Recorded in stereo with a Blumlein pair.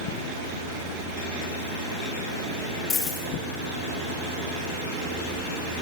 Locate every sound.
2.9 s a dropped coin: 15° left, 4 m